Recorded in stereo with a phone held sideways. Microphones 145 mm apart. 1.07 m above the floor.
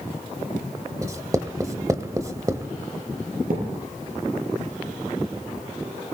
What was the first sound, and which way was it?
Writing, 25° right (ahead or behind).